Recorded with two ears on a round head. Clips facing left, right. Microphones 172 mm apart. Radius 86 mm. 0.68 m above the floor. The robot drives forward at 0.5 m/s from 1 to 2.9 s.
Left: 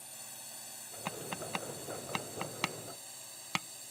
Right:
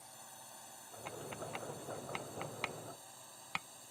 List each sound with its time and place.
0.0 s a drone: 30° left (ahead or behind)
1.1 s tapping: 80° left; by 3.9 s 60° left (ahead or behind)